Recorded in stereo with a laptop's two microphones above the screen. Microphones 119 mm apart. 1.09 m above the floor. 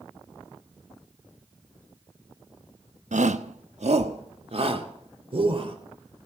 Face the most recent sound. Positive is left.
turn(degrees=-50)  # may be behind; listen again after turning